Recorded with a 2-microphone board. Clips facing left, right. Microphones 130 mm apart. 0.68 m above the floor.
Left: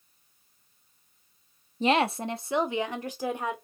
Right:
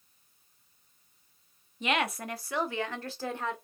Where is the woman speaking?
35° left (ahead or behind), 0.8 m; by 3.5 s 15° left (ahead or behind), 2.0 m.